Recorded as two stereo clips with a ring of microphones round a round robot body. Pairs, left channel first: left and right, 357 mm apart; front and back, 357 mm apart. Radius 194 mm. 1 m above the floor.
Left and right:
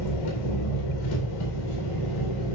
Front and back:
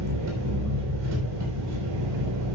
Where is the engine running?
130° left, 4 m.